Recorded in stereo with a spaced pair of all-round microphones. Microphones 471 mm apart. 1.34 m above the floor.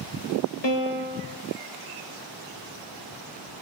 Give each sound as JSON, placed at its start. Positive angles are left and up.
{"t": 0.6, "sound": "a piano", "side_deg": 60, "distance_m": 1.1}